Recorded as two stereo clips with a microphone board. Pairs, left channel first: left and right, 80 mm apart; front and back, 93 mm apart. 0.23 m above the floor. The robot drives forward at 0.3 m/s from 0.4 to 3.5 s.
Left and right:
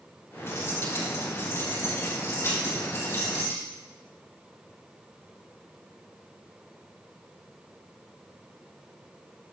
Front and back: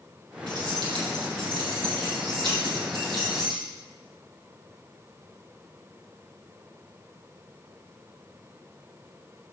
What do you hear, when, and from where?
0.5 s keys jangling: 145° left, 4.5 m; by 3.6 s 155° left, 5 m